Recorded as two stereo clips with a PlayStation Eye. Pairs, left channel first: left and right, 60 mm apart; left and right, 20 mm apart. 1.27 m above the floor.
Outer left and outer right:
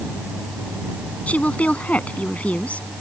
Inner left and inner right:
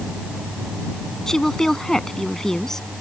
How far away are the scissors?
I don't hear scissors.